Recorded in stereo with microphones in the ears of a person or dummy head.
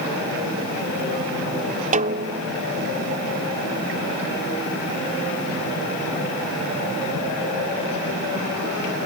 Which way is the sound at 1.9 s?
35° right (ahead or behind).